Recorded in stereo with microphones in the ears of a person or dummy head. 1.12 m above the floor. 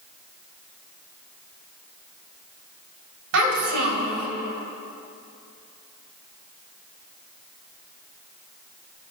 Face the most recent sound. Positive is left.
turn(degrees=-75)  # may be behind; listen again after turning